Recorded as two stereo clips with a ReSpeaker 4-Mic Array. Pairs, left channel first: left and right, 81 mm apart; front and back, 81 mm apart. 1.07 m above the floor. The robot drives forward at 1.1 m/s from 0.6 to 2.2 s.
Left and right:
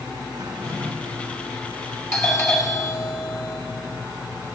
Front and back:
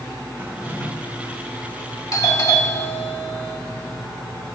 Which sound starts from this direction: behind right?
A drawer, at 0.4 s.